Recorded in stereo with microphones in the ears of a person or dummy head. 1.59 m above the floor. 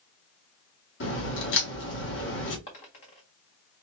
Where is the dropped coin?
30° left (ahead or behind), 1.6 m.